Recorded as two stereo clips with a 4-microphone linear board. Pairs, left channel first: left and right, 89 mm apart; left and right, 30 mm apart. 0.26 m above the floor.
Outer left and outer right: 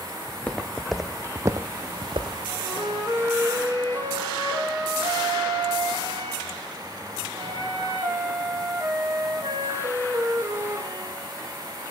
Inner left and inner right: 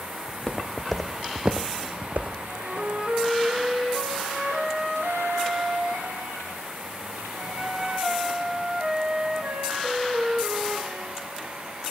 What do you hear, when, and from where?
0.3 s footsteps: 20° left (ahead or behind), 1.2 m; by 2.4 s 75° right (ahead or behind), 0.9 m
2.5 s a flute: 45° right (ahead or behind), 3 m